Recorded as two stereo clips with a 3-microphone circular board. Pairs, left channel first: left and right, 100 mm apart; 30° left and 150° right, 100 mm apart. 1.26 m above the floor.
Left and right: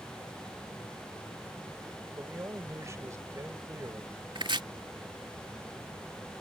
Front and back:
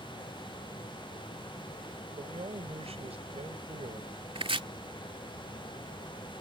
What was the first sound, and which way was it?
A man speaking, 150° right.